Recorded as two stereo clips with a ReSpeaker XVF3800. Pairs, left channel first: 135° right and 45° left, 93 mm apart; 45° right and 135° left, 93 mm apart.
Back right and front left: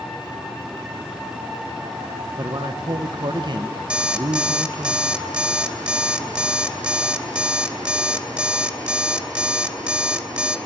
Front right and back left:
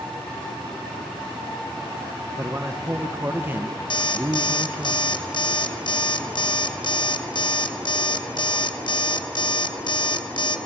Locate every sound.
2.4 s a man speaking: 70° left, 0.9 m
3.9 s an alarm clock: 30° right, 0.7 m